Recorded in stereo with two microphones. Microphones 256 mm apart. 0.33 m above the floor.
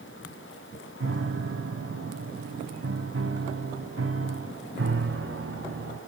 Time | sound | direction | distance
1.0 | a piano | 60° right (ahead or behind) | 0.7 m